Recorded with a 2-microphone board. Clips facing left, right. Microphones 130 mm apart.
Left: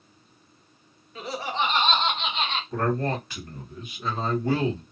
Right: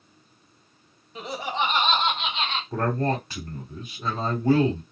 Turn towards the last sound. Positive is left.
turn(degrees=-35)  # may be behind; listen again after turning